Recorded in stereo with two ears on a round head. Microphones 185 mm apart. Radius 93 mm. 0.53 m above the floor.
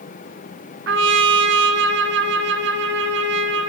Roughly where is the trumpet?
Right.